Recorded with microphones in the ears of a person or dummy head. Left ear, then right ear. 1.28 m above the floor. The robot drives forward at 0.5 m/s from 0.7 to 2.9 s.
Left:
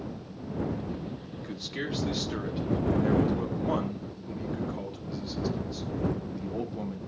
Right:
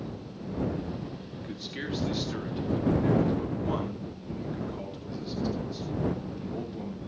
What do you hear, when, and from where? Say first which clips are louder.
1.4 s a man speaking: left 2 dB; 15° left (ahead or behind), 1.9 m